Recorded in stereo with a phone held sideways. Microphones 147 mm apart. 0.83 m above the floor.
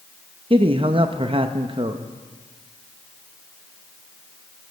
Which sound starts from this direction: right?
A man speaking, at 0.5 s.